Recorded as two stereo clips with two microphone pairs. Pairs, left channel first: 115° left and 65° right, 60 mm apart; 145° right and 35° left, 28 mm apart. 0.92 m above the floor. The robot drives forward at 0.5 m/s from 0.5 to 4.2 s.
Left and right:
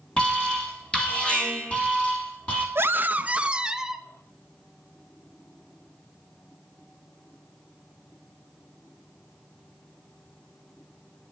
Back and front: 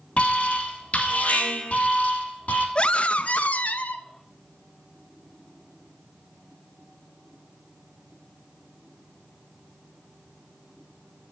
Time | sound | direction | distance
0.2 | an alarm | 175° right | 2.5 m
2.8 | a scream | 105° right | 0.5 m